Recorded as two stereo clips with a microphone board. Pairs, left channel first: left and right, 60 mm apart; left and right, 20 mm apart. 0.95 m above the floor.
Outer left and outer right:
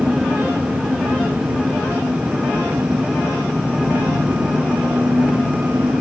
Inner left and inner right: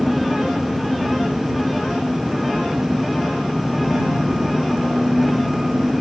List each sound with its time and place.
0.0 s an engine running: 30° right (ahead or behind)